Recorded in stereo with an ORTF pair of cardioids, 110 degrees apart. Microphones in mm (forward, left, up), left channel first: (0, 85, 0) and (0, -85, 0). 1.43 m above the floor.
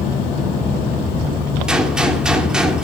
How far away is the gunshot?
About 4 m.